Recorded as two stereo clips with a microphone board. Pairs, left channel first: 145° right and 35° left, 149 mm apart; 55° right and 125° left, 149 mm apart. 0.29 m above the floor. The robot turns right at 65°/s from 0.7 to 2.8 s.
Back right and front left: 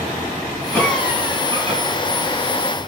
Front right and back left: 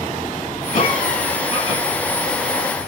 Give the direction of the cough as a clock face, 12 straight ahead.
2 o'clock.